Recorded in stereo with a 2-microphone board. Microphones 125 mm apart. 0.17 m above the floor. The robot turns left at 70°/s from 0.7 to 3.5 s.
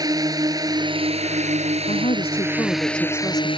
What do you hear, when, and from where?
0.0 s a drone: 35° right; by 3.6 s 130° left
1.9 s a woman speaking: 80° left; by 3.5 s 30° right